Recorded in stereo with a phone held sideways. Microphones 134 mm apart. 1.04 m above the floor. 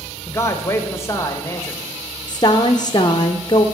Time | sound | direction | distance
0.3 | a man speaking | 20° left (ahead or behind) | 1.4 m
2.3 | a woman speaking | 35° left (ahead or behind) | 0.6 m